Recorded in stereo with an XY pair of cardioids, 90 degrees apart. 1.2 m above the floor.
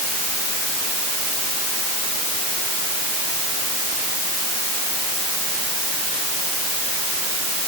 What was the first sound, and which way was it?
Only background noise.